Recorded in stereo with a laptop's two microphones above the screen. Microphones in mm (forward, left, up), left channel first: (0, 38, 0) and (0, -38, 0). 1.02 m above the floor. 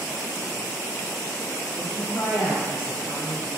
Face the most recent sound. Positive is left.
turn(degrees=25)  # may be behind; listen again after turning